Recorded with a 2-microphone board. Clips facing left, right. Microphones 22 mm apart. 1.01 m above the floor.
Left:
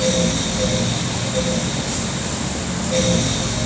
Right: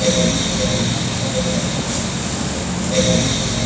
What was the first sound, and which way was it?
Only background noise.